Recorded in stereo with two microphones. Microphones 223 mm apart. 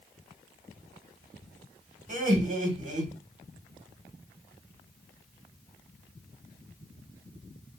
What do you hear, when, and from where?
2.1 s laughter: 40° right (ahead or behind), 1.1 m